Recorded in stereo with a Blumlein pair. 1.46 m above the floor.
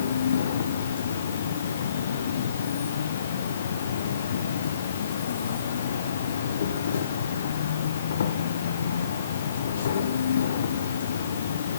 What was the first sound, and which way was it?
An insect, 65° left.